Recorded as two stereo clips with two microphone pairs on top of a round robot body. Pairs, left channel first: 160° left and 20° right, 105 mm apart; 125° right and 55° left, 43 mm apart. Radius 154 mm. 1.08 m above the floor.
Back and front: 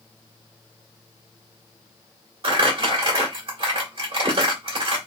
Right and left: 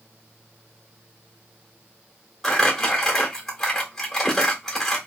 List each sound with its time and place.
2.4 s crumpling: 50° right, 1.6 m